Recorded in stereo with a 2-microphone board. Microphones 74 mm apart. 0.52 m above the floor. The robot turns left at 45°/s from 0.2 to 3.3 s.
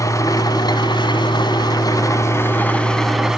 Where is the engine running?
135° left, 1.7 m; by 3.4 s 5° right, 1.7 m.